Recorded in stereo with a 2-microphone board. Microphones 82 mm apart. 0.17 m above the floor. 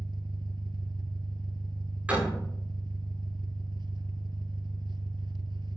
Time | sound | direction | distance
0.0 | an engine running | 75° right (ahead or behind) | 0.9 m
2.1 | a door slam | 20° right (ahead or behind) | 9 m